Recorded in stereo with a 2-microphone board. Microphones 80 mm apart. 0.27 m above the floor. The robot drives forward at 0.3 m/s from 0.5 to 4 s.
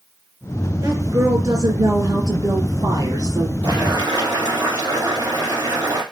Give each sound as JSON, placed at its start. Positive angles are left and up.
{"t": 0.8, "sound": "a woman speaking", "side_deg": -50, "distance_m": 3.5}
{"t": 3.6, "sound": "boiling", "side_deg": -65, "distance_m": 2.5}